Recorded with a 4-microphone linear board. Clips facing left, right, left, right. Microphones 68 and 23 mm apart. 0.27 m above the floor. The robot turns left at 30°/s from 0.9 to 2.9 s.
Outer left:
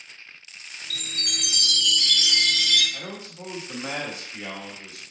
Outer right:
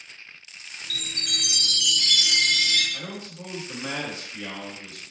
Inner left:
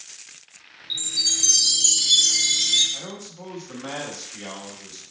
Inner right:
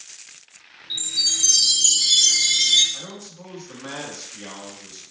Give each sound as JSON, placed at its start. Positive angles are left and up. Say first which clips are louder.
{"t": 0.9, "sound": "a chime", "louder": "outer right 1 dB, inner right 1 dB", "azimuth_deg": 15, "distance_m": 0.7}
{"t": 2.9, "sound": "a man speaking", "louder": "even, inner left 1 dB", "side_deg": 25, "distance_m": 1.6}